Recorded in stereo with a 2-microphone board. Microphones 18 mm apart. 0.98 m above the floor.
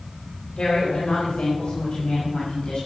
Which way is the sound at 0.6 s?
60° left (ahead or behind).